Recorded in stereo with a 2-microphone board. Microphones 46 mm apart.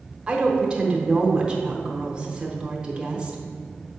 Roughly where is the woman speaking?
Right.